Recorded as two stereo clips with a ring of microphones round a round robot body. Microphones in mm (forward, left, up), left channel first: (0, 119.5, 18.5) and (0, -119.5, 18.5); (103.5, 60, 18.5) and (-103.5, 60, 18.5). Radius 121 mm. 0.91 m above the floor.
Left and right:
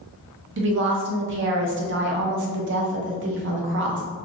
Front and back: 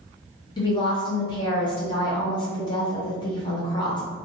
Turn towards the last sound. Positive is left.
turn(degrees=-65)